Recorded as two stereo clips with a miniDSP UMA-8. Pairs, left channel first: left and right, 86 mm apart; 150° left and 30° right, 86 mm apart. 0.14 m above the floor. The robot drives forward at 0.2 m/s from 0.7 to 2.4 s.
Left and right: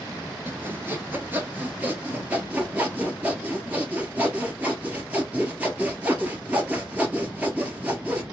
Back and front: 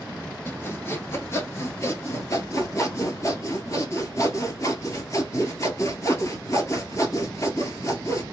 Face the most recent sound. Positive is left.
turn(degrees=-160)